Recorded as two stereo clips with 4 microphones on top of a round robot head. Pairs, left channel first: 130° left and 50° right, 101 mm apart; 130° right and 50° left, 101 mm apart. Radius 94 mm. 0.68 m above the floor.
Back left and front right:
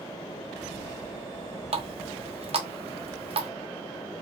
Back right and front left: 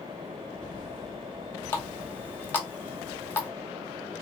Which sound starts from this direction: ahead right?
A running tap, at 1.7 s.